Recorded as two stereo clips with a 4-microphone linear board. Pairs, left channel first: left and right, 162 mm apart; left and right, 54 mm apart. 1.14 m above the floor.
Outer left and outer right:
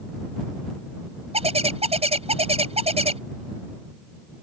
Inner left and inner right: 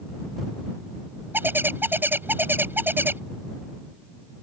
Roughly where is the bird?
Right.